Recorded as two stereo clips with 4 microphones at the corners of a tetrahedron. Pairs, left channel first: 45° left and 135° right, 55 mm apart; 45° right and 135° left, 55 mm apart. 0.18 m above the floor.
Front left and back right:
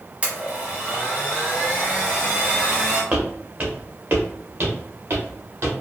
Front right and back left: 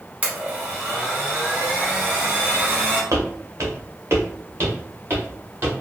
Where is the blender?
Straight behind, 1.1 m.